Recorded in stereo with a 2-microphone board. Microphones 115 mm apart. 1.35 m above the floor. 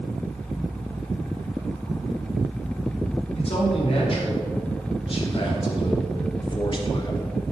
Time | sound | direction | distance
3.4 | a man speaking | 50° left (ahead or behind) | 5 m